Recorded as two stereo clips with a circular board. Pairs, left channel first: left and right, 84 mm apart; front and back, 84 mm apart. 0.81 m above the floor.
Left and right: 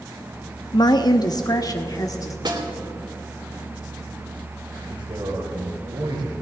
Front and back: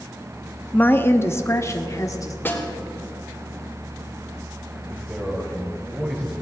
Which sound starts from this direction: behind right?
A man speaking, at 4.9 s.